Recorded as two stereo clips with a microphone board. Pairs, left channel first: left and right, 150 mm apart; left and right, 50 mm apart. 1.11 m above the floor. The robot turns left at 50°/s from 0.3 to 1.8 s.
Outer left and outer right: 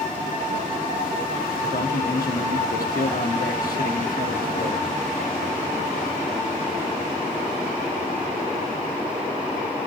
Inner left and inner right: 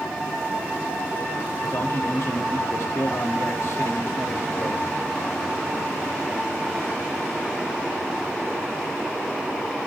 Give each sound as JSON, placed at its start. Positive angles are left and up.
{"t": 1.6, "sound": "a man speaking", "side_deg": 65, "distance_m": 1.6}